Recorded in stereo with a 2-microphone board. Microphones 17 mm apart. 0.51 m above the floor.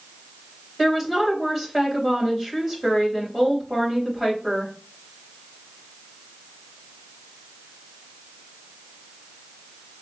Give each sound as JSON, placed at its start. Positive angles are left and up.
{"t": 0.8, "sound": "a woman speaking", "side_deg": -15, "distance_m": 3.5}